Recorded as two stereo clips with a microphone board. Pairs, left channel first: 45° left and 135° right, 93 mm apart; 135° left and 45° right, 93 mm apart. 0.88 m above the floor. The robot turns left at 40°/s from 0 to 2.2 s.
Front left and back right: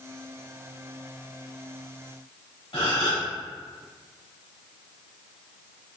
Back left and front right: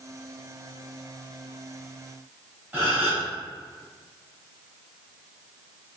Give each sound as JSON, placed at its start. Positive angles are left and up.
{"t": 2.7, "sound": "a gasp", "azimuth_deg": 25, "distance_m": 1.9}